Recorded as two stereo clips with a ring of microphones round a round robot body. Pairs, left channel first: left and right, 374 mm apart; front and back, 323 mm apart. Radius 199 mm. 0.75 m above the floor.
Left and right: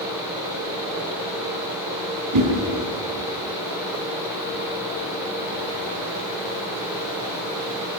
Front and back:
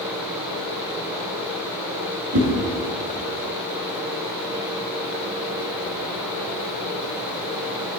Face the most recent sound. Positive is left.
turn(degrees=-135)